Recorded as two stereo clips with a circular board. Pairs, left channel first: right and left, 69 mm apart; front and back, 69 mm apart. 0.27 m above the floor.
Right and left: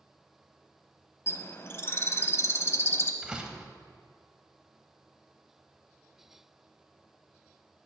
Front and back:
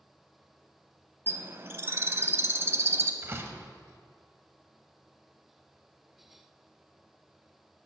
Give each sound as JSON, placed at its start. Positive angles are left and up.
{"t": 1.3, "sound": "a bird", "azimuth_deg": -135, "distance_m": 0.5}
{"t": 3.2, "sound": "a door slam", "azimuth_deg": 160, "distance_m": 0.7}